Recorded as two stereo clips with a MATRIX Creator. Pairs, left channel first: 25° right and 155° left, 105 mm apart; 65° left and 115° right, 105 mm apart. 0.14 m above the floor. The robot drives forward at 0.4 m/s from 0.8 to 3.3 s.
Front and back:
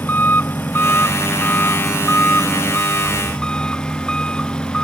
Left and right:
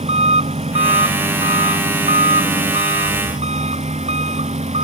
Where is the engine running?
95° right; by 4.8 s 105° right.